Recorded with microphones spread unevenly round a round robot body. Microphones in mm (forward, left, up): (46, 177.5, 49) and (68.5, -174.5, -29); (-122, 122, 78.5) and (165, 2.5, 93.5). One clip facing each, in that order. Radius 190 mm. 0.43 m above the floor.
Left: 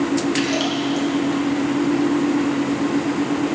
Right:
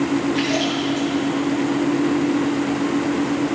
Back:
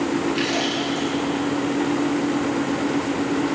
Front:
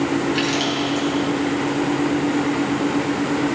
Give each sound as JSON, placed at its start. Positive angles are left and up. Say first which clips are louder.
{"t": 0.3, "sound": "a splash", "louder": "even, front 2 dB", "azimuth_deg": 35, "distance_m": 5.0}